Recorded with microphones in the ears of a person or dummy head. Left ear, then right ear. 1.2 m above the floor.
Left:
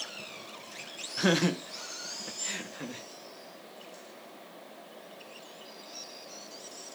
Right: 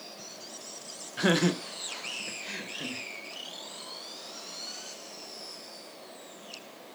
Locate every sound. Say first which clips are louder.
1.2 s laughter: right 1 dB; centre (ahead or behind), 0.9 m; by 3.0 s 30° left (ahead or behind), 1.8 m